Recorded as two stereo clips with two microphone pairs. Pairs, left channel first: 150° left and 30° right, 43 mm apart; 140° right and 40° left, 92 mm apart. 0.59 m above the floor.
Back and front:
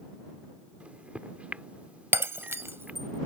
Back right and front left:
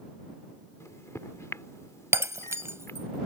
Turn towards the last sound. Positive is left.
turn(degrees=-20)